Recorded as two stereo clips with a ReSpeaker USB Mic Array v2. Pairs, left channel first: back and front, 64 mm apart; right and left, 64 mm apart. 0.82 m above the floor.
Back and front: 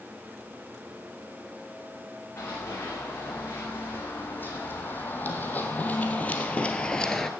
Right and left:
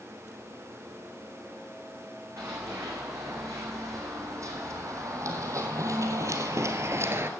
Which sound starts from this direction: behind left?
Running footsteps, at 2.4 s.